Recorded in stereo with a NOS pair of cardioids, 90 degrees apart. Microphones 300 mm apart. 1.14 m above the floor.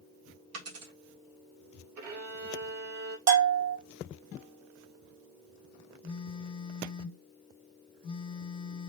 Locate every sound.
0.5 s a dropped coin: 55° right, 1.7 m
2.0 s a violin: 55° right, 1.7 m
3.3 s a bell: 60° right, 2 m
6.0 s a phone buzzing: 15° left, 1.2 m